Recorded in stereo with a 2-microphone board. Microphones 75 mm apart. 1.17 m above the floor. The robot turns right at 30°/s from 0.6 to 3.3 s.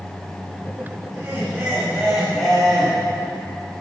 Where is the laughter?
40° right, 2.5 m; by 2.9 s 15° left, 2.5 m.